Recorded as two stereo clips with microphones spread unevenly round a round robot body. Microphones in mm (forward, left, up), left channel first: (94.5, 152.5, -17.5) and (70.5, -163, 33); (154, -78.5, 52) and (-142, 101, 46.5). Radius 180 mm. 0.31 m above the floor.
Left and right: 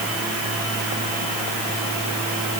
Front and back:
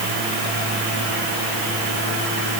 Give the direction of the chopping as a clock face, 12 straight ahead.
I don't hear chopping.